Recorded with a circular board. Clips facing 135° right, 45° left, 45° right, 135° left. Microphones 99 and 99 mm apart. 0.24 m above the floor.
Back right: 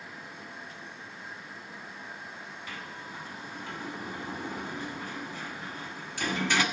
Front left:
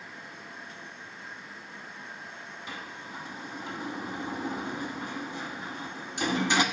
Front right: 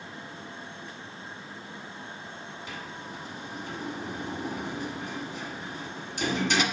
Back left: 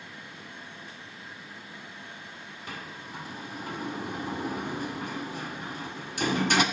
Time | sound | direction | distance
2.7 | a sliding door | 110° left | 1.1 m